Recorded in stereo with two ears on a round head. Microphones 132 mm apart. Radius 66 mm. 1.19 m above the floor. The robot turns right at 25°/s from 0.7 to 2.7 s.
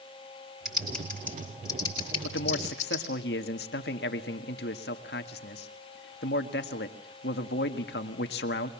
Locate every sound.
0.7 s typing on a keyboard: centre (ahead or behind), 7 m; by 3.0 s 50° left (ahead or behind), 7 m
2.2 s a man speaking: 85° left, 1.8 m; by 8.7 s 80° left, 1.8 m